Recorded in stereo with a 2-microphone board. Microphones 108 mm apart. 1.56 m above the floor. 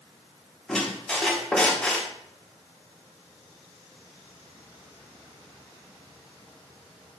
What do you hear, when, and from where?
0.7 s a squeak: 5° left (ahead or behind), 0.6 m